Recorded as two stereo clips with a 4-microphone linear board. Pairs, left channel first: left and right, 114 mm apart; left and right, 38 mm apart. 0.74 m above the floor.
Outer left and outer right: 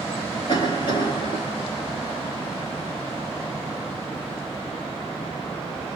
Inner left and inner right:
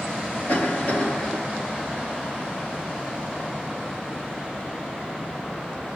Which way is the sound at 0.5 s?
45° left (ahead or behind).